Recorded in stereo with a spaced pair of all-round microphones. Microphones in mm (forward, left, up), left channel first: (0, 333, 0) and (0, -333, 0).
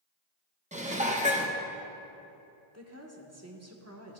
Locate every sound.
0.7 s dishes clattering: 10° right (ahead or behind), 0.8 m
2.7 s a woman speaking: 25° right (ahead or behind), 1.1 m